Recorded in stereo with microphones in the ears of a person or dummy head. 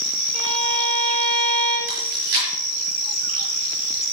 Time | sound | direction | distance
0.3 | a violin | 45° right (ahead or behind) | 4.5 m
1.9 | chewing | 75° right (ahead or behind) | 5 m